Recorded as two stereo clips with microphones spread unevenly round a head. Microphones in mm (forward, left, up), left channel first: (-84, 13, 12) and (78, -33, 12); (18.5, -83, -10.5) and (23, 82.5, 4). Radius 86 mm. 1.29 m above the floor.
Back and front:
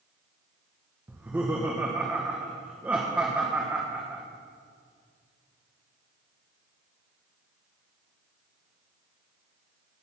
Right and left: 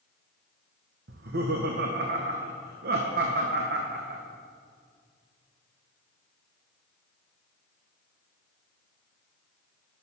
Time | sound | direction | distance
1.1 | laughter | 65° left | 1.0 m